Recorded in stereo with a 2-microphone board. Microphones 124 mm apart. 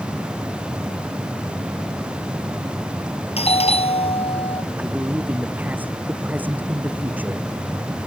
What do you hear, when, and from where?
3.4 s a doorbell: 55° left (ahead or behind)
4.8 s a man speaking: 15° right (ahead or behind)